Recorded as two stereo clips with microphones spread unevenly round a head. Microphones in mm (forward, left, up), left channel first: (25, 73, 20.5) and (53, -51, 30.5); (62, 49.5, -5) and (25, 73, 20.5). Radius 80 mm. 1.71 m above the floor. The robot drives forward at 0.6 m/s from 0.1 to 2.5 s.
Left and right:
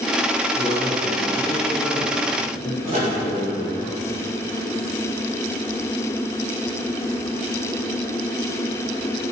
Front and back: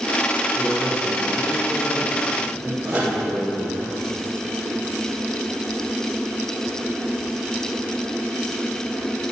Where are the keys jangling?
I don't hear keys jangling.